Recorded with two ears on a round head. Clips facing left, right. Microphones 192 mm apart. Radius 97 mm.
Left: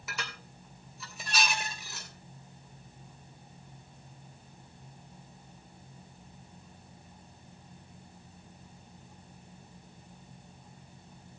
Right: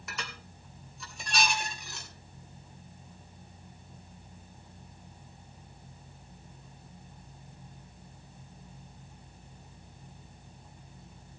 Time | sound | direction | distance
0.1 | dishes clattering | 5° left (ahead or behind) | 2.5 m